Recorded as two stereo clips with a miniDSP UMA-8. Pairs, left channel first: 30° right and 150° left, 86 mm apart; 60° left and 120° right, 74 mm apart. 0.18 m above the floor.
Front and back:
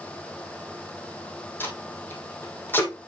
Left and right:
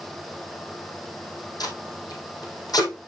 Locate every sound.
1.6 s tape being pulled: 35° left, 2.5 m